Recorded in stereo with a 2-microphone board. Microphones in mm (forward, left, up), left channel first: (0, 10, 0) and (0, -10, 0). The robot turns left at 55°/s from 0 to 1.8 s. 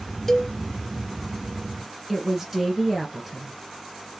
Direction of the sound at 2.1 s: 15° right (ahead or behind).